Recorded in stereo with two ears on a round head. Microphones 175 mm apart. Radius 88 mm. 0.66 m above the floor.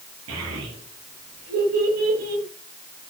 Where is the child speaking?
85° right, 6.5 m; by 2.4 s 90° right, 4.5 m.